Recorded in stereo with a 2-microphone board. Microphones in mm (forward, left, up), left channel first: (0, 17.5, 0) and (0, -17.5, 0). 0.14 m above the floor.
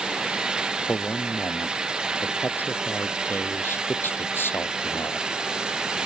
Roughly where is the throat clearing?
No throat clearing in this recording.